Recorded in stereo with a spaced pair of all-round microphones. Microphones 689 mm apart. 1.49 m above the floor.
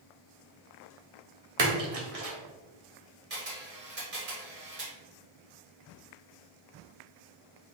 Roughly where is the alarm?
No alarm in this recording.